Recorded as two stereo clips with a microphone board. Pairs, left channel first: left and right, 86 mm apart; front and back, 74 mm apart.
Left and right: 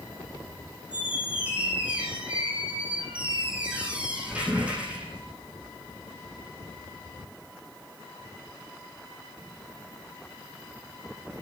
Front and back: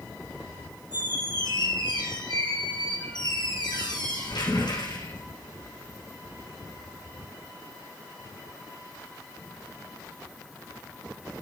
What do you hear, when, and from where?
0.9 s a squeak: 15° right, 6 m